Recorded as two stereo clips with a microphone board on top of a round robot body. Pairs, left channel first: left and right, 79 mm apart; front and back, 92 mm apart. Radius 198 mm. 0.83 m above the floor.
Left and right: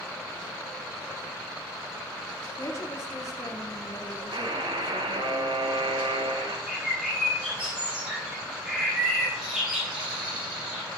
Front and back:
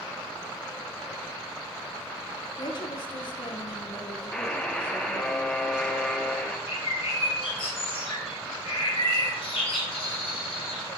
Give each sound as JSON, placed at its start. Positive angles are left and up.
{"t": 2.6, "sound": "a woman speaking", "azimuth_deg": 35, "distance_m": 2.0}
{"t": 4.3, "sound": "a buzzer", "azimuth_deg": -80, "distance_m": 1.9}
{"t": 6.7, "sound": "a bird", "azimuth_deg": -10, "distance_m": 7.5}